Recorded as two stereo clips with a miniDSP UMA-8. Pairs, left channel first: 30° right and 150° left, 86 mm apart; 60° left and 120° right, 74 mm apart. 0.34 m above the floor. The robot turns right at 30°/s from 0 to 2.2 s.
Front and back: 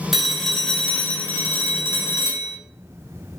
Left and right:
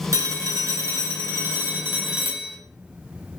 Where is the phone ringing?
125° right, 0.7 m; by 2.6 s 60° right, 0.7 m.